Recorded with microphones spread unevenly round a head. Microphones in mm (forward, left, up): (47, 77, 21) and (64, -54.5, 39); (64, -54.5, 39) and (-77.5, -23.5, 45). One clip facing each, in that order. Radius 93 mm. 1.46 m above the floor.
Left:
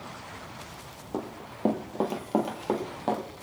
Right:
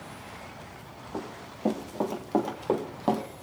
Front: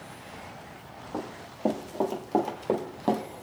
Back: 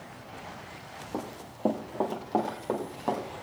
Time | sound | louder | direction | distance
1.1 | running footsteps | left 3 dB, front 1 dB | 105° left | 1.8 m